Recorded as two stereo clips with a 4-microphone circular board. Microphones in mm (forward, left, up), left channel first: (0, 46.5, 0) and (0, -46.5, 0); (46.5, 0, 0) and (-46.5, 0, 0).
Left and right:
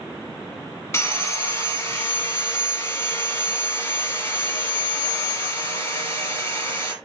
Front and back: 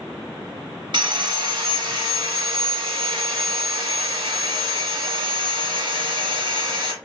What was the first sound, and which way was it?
Sawing, 150° left.